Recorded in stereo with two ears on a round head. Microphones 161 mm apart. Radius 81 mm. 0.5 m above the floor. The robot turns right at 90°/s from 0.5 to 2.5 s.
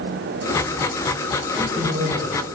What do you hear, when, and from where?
1.5 s a man speaking: 160° right, 3 m; by 2.5 s 80° right, 3 m